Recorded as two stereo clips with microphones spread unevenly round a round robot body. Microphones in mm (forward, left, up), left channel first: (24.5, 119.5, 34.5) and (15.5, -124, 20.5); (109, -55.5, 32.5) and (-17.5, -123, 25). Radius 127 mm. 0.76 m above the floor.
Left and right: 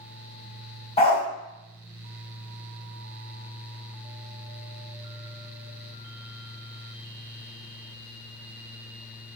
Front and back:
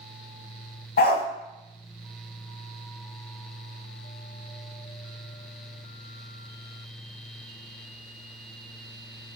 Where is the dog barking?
25° left, 0.9 m.